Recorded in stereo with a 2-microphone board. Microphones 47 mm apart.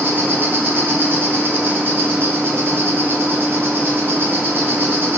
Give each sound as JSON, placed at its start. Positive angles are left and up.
{"t": 0.0, "sound": "an insect", "side_deg": -50, "distance_m": 0.8}